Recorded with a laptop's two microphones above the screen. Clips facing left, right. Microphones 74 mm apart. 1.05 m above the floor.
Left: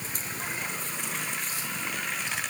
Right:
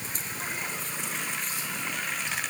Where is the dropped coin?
No dropped coin in this recording.